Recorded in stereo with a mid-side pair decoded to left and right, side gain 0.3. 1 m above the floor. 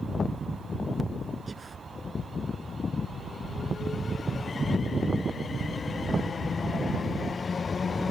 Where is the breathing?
40° right.